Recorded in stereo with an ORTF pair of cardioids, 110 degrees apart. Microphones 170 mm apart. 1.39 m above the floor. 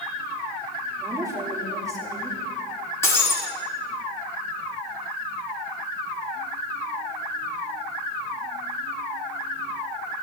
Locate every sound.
1.0 s a woman speaking: 20° right, 2.5 m
3.0 s breaking glass: 15° left, 2.5 m